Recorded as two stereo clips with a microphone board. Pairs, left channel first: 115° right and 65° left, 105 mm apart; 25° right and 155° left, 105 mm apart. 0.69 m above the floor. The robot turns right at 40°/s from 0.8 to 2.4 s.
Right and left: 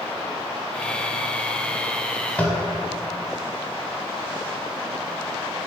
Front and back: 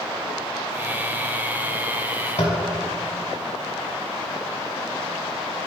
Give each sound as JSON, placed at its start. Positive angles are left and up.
{"t": 2.4, "sound": "tapping", "azimuth_deg": -35, "distance_m": 1.1}